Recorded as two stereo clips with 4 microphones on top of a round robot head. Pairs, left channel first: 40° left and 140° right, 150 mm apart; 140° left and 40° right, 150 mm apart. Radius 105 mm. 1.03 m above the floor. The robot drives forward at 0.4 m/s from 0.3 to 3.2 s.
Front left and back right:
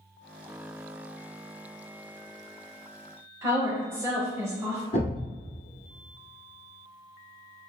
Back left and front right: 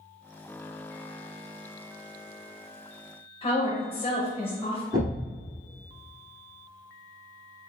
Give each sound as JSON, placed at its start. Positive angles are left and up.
{"t": 3.4, "sound": "a woman speaking", "azimuth_deg": 160, "distance_m": 0.8}
{"t": 4.9, "sound": "a thud", "azimuth_deg": 10, "distance_m": 1.0}